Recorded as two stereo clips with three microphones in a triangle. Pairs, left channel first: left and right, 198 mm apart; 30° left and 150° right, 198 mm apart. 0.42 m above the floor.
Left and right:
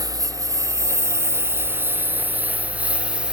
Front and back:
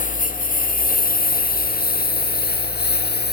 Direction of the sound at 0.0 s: 20° right.